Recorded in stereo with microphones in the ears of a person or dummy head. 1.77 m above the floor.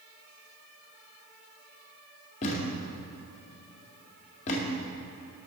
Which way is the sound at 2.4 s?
40° left (ahead or behind).